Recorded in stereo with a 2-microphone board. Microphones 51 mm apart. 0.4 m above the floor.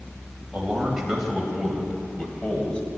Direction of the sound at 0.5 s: 15° right (ahead or behind).